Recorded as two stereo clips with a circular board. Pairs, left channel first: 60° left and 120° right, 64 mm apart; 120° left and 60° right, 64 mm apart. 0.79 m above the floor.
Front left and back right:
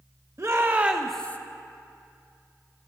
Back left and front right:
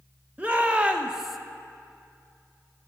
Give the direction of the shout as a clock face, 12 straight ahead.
4 o'clock.